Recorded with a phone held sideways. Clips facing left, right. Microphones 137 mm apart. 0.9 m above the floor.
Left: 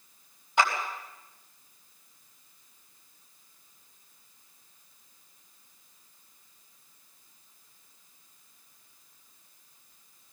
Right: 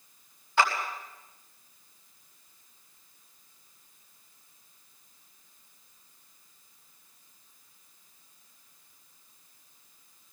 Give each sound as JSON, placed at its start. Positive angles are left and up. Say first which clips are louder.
{"t": 0.6, "sound": "a clap", "louder": "even", "side_deg": 15, "distance_m": 5.0}